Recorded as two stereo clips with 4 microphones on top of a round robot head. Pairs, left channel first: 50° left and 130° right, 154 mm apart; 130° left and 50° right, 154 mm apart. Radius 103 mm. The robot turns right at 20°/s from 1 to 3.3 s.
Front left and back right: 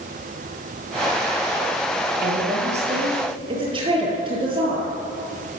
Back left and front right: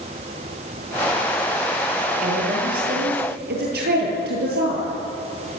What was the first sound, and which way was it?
A woman speaking, 90° right.